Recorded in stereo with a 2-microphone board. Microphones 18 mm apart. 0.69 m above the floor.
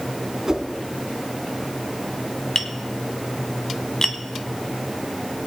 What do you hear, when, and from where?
0.5 s a whoosh: 35° right (ahead or behind), 1.2 m
2.5 s tapping: 35° left (ahead or behind), 1.0 m